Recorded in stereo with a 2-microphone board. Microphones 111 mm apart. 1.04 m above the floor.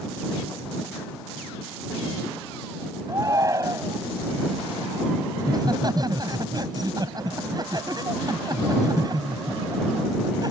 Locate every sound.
3.1 s a shout: 30° right (ahead or behind)
5.4 s laughter: 40° right (ahead or behind)